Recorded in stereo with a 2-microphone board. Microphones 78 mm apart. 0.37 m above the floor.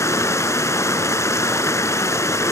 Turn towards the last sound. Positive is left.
turn(degrees=40)  # may be behind; listen again after turning